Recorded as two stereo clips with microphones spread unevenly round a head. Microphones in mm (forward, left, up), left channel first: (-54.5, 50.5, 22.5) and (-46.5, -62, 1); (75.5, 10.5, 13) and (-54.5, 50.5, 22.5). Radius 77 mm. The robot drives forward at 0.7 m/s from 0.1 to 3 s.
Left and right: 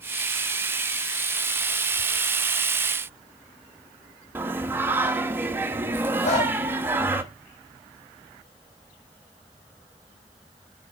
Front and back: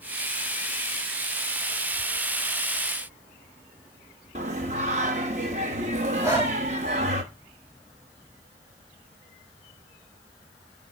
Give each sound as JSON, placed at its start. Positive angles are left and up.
{"t": 4.3, "sound": "singing", "azimuth_deg": -160, "distance_m": 1.1}
{"t": 6.2, "sound": "breathing", "azimuth_deg": 95, "distance_m": 5.5}